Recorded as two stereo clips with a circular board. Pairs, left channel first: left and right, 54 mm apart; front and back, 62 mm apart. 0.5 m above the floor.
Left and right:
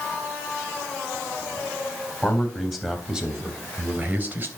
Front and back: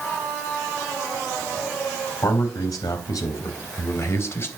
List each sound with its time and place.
2.2 s a man speaking: 10° left, 4 m; by 4.5 s 45° right, 3 m